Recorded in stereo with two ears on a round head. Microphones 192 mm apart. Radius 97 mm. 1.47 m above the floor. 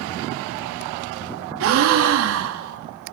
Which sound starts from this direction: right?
A gasp, at 1.6 s.